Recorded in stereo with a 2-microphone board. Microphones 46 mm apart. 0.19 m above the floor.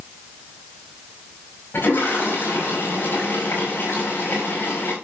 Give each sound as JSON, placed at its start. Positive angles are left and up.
{"t": 1.7, "sound": "a toilet flushing", "side_deg": 55, "distance_m": 6.0}